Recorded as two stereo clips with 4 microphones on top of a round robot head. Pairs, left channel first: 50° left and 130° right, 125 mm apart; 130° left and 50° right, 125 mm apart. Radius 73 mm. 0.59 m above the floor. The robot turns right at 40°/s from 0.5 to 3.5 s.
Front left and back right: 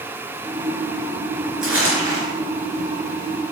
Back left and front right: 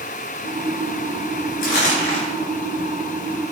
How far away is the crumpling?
About 3.5 m.